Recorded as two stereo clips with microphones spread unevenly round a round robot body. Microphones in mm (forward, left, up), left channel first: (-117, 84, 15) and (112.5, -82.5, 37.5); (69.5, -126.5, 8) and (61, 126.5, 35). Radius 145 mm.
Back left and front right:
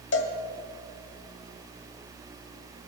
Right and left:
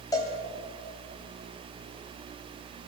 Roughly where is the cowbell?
Behind.